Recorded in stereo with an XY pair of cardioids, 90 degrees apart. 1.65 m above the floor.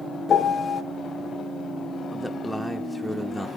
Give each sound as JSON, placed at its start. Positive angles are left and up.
{"t": 0.3, "sound": "a piano", "azimuth_deg": 50, "distance_m": 0.6}
{"t": 2.1, "sound": "a man speaking", "azimuth_deg": -5, "distance_m": 0.6}